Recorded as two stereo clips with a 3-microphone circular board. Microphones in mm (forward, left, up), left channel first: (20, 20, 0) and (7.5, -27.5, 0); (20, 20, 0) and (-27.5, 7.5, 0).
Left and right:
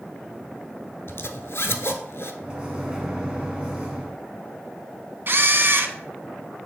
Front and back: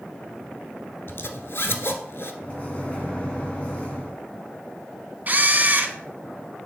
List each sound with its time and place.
1.1 s a zipper: 50° left, 0.7 m
2.4 s a microwave: 40° right, 1.8 m
5.3 s a camera shutter: 125° right, 0.6 m